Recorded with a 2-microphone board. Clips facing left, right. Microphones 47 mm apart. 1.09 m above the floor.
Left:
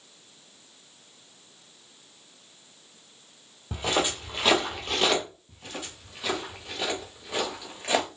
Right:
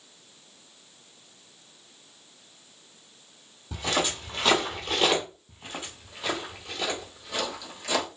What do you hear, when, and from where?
3.7 s footsteps: 30° left (ahead or behind), 1.6 m; by 5.2 s 10° right (ahead or behind), 1.3 m
5.5 s footsteps: 20° right (ahead or behind), 1.6 m; by 8.1 s 35° left (ahead or behind), 1.5 m